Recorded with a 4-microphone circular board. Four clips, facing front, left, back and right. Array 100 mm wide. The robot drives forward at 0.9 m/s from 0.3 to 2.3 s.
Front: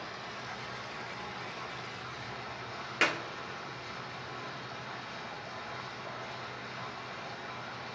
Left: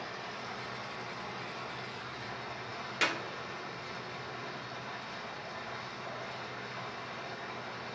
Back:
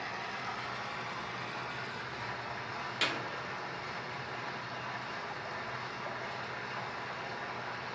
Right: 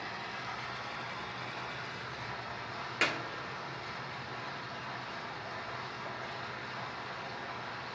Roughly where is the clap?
Ahead.